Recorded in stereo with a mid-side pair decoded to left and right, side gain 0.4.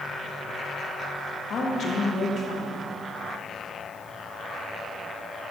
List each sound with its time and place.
1.5 s a woman speaking: 55° left, 1.8 m